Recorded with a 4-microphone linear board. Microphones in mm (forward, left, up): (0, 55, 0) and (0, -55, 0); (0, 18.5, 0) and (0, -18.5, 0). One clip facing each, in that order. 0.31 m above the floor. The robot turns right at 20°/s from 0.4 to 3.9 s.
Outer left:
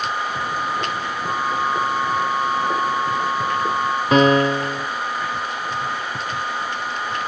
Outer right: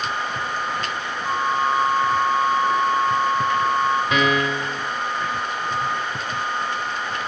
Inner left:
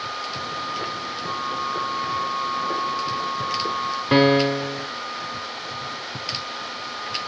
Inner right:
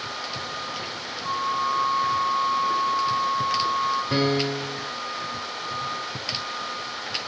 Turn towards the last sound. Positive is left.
turn(degrees=35)  # may be behind; listen again after turning